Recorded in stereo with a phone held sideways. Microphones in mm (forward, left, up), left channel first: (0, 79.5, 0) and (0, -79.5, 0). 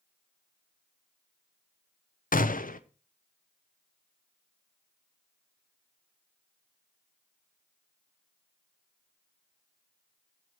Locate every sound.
2.3 s a gunshot: 55° left (ahead or behind), 0.6 m